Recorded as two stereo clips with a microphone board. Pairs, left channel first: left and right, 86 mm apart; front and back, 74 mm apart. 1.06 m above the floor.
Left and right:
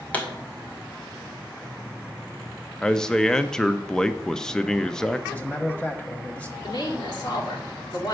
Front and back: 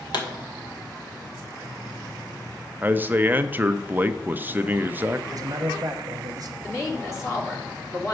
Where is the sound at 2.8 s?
165° left, 0.6 m.